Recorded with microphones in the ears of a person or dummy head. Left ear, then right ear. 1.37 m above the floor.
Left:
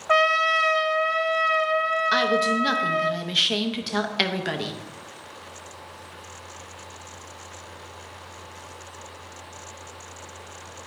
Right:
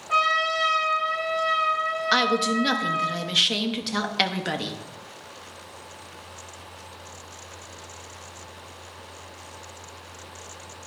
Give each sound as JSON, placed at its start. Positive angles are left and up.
{"t": 0.1, "sound": "a trumpet", "side_deg": 45, "distance_m": 0.5}
{"t": 2.1, "sound": "a woman speaking", "side_deg": 0, "distance_m": 0.6}